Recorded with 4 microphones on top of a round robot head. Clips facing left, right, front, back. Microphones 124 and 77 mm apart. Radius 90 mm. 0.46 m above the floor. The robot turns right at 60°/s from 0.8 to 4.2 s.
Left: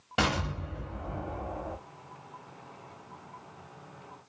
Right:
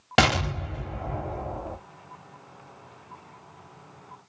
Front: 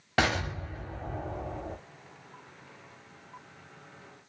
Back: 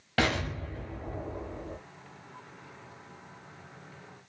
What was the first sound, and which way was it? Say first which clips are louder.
An explosion: right 7 dB, front 1 dB; 75° right.